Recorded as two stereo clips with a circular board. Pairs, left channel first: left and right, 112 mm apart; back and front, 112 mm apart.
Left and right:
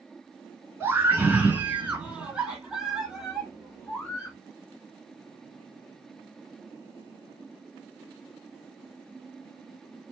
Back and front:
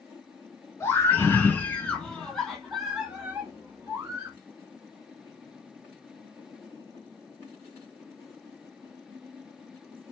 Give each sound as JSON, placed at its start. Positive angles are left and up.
{"t": 0.8, "sound": "a scream", "azimuth_deg": -140, "distance_m": 1.9}